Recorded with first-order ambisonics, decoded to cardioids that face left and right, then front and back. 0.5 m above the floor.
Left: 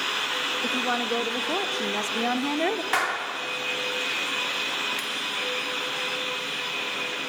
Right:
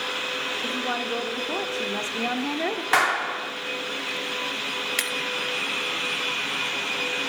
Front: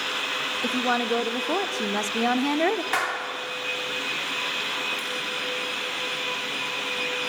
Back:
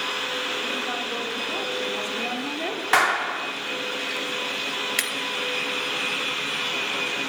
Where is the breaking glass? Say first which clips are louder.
Right 4 dB, back 5 dB; 145° right, 3 m.